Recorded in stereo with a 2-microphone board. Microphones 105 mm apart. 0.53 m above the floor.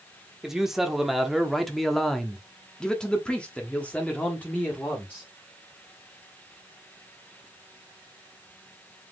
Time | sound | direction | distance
0.4 | a man speaking | 5° right (ahead or behind) | 1.7 m